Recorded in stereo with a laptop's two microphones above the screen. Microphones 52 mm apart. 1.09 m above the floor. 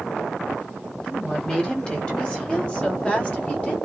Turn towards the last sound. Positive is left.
turn(degrees=25)  # may be behind; listen again after turning